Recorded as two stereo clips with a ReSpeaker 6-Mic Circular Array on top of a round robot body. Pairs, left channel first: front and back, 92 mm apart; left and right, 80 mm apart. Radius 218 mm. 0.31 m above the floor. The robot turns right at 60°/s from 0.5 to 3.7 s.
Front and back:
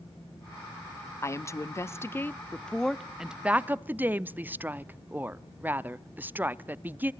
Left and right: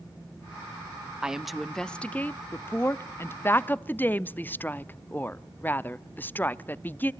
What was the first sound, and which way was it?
A woman speaking, 20° right.